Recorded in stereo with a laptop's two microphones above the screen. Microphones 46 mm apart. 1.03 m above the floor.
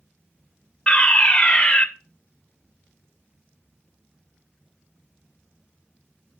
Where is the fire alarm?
20° left (ahead or behind), 1.2 m.